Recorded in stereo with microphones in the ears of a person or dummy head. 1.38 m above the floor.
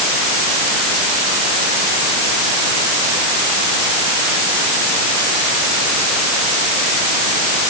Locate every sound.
Only background noise.